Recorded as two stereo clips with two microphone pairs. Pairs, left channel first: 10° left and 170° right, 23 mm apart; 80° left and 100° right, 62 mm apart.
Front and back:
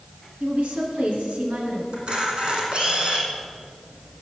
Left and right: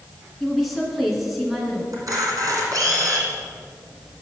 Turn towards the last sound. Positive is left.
turn(degrees=-130)